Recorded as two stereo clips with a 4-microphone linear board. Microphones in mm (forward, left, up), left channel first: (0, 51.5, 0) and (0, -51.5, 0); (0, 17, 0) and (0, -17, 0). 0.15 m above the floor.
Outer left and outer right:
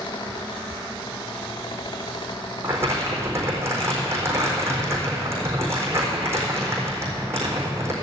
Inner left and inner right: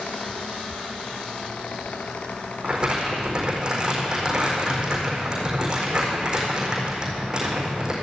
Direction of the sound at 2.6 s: 25° right (ahead or behind).